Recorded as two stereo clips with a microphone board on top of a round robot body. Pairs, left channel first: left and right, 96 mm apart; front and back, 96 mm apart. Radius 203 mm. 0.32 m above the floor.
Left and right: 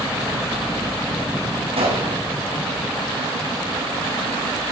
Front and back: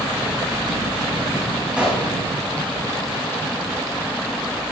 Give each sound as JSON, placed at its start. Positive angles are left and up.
{"t": 1.8, "sound": "a gunshot", "azimuth_deg": -100, "distance_m": 8.5}